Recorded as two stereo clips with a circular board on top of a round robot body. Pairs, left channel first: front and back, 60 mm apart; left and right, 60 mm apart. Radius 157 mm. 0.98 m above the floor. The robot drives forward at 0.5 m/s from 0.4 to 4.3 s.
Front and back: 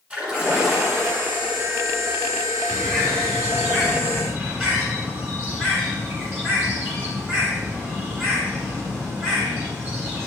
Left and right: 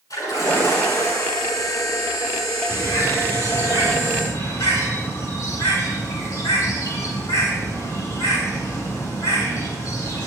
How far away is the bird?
About 9.5 m.